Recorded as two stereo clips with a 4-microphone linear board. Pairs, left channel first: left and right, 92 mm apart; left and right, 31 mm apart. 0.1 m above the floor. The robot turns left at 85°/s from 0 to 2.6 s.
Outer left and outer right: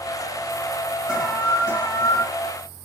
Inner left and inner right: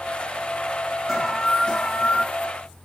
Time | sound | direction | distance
1.1 | an alarm | 165° right | 1.9 m